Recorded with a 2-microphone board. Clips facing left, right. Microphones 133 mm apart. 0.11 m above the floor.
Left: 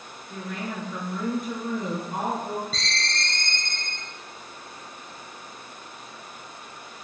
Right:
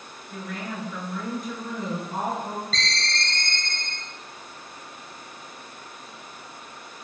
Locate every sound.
0.3 s a woman speaking: 25° left (ahead or behind), 1.1 m
2.7 s a ringtone: 15° left (ahead or behind), 0.6 m